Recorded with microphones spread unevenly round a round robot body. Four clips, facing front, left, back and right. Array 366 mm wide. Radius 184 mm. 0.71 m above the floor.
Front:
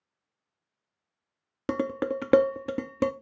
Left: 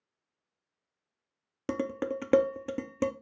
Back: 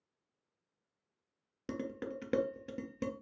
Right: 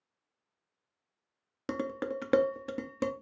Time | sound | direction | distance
1.7 | dishes clattering | 15° left | 0.5 m